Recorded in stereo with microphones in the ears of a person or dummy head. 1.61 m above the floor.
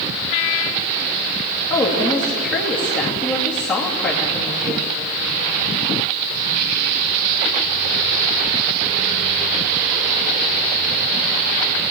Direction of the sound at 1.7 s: 5° left (ahead or behind).